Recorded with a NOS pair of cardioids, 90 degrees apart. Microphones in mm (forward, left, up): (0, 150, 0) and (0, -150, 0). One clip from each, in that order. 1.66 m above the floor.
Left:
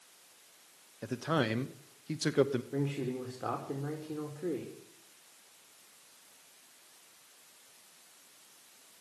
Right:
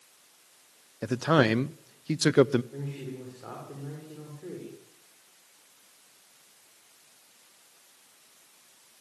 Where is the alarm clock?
I don't hear an alarm clock.